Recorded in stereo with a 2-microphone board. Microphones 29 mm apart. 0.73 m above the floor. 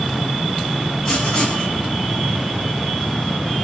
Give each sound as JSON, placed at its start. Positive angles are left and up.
{"t": 1.1, "sound": "writing", "side_deg": 20, "distance_m": 6.0}